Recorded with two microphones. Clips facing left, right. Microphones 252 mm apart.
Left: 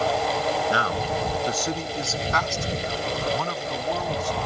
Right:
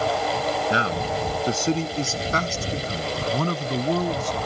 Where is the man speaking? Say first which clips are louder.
Right 1 dB; 25° right (ahead or behind); by 4.5 s 45° right (ahead or behind).